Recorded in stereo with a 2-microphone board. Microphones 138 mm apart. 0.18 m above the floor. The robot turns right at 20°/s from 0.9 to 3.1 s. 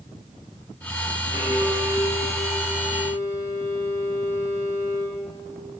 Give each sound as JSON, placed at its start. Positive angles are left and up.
{"t": 1.3, "sound": "a violin", "azimuth_deg": 95, "distance_m": 9.0}